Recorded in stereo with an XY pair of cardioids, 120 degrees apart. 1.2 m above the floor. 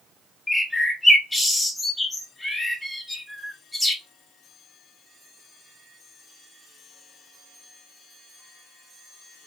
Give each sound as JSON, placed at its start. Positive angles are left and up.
{"t": 0.5, "sound": "a bird", "azimuth_deg": 5, "distance_m": 1.1}